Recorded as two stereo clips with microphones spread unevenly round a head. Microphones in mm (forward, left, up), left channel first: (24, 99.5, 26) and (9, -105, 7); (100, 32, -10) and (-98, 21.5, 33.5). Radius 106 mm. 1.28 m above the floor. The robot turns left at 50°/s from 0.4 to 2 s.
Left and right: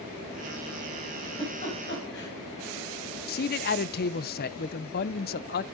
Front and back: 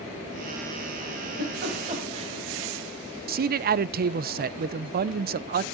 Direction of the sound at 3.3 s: 135° left.